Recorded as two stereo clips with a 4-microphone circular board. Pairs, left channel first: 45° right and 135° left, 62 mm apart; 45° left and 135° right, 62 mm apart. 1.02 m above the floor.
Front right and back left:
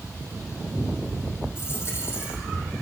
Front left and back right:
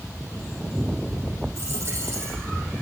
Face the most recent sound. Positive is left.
turn(degrees=-90)